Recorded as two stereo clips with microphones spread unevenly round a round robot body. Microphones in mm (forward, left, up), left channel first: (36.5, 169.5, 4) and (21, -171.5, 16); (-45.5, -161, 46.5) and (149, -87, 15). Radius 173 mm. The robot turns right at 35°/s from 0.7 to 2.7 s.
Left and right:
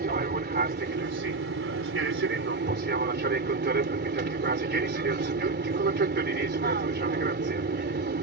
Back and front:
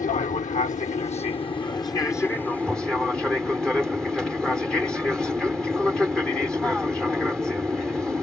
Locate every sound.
0.0 s an aircraft: 130° right; by 8.2 s 60° right